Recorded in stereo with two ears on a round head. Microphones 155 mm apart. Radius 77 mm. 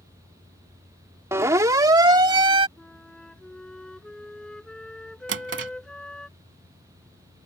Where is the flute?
5° left (ahead or behind).